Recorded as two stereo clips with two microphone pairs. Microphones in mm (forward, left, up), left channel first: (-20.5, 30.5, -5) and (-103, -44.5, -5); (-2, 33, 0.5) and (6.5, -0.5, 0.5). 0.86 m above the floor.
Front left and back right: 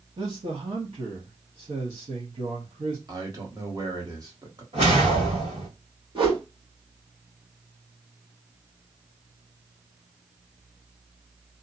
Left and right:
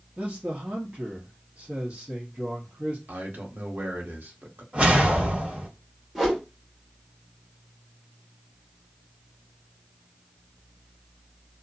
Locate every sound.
0.2 s a man speaking: 130° right, 1.2 m
3.1 s a man speaking: 85° right, 1.3 m
4.7 s a whoosh: 125° right, 2 m
6.2 s a whoosh: 150° right, 1.4 m